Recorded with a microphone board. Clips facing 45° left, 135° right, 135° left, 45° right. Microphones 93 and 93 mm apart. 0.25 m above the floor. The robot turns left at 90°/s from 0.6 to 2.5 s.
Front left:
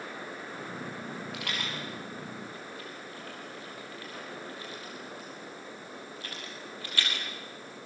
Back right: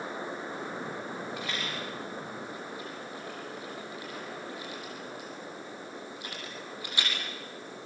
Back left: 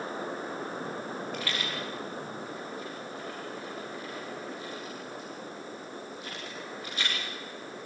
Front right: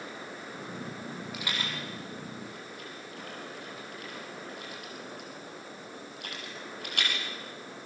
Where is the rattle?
40° left, 7.5 m; by 7.1 s 65° right, 7.5 m.